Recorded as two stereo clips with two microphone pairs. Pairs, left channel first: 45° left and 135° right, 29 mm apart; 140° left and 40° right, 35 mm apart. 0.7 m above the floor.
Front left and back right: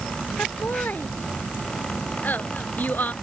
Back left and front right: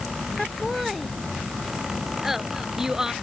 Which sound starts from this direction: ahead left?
Laughter, at 0.4 s.